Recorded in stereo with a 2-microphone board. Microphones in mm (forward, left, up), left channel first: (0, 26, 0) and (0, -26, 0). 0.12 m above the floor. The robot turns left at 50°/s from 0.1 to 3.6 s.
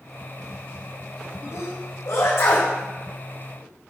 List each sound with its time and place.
1.5 s a sneeze: 75° left (ahead or behind), 7 m; by 2.7 s 40° left (ahead or behind), 7 m